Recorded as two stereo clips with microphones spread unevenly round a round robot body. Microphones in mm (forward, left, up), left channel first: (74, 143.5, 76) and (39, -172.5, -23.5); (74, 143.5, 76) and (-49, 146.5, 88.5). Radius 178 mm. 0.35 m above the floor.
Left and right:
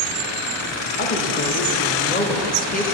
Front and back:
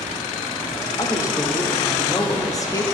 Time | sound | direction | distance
1.0 | a woman speaking | 10° left | 1.0 m